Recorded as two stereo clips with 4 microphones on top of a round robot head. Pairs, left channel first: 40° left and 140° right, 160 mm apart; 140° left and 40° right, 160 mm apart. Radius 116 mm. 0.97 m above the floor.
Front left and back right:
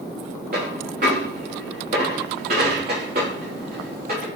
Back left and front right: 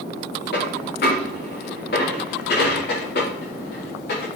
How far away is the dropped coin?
About 4.5 m.